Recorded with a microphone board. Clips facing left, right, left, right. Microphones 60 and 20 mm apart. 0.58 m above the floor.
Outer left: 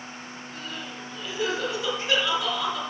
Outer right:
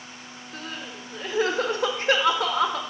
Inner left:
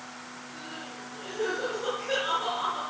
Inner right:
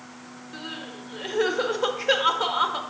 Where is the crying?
55° right (ahead or behind), 0.9 m.